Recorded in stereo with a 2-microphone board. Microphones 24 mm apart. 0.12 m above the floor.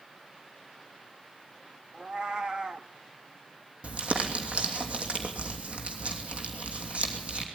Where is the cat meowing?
40° right (ahead or behind), 1.3 m.